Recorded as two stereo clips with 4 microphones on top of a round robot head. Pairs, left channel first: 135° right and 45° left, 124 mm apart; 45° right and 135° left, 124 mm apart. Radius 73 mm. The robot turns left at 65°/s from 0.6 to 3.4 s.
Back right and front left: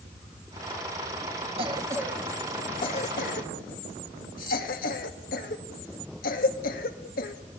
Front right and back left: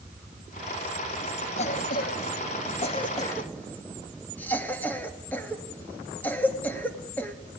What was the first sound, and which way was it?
A cough, 5° right.